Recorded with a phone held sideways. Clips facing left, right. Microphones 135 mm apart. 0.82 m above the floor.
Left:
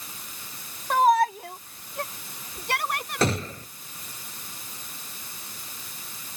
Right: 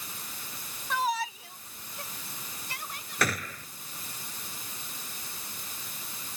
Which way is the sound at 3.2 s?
25° left (ahead or behind).